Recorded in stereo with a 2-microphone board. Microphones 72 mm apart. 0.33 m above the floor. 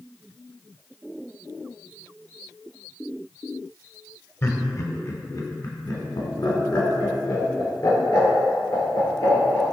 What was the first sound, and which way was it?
Laughter, 35° left (ahead or behind).